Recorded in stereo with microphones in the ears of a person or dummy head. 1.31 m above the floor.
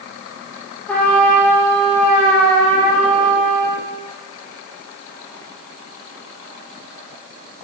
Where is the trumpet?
10° left (ahead or behind), 4 m.